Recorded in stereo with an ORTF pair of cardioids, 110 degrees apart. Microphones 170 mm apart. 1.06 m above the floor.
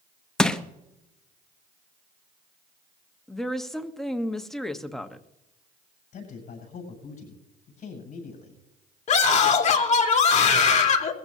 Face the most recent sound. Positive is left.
turn(degrees=45)